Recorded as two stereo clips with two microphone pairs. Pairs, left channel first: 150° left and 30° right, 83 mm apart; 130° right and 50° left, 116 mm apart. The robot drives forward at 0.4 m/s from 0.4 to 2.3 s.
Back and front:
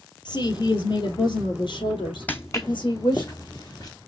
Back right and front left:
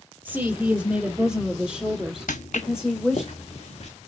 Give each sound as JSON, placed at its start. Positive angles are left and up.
{"t": 0.2, "sound": "a woman speaking", "azimuth_deg": 125, "distance_m": 3.5}
{"t": 2.3, "sound": "footsteps", "azimuth_deg": -135, "distance_m": 0.5}